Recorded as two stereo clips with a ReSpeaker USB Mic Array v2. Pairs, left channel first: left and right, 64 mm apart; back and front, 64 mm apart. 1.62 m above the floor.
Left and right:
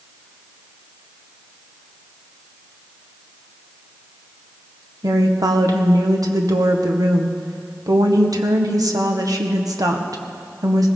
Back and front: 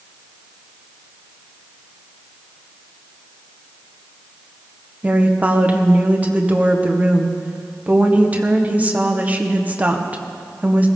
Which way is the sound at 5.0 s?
65° right.